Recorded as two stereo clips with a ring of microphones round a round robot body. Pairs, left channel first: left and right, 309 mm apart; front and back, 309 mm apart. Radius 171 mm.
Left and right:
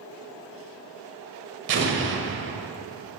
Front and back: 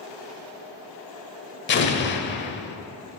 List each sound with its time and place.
1.7 s an explosion: 45° right, 1.0 m